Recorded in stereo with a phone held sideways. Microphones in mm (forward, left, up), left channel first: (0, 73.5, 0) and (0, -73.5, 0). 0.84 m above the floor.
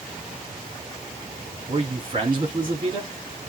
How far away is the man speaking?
About 2 m.